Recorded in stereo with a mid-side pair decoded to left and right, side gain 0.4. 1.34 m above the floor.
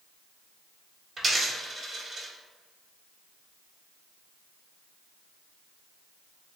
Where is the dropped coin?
40° right, 1.9 m.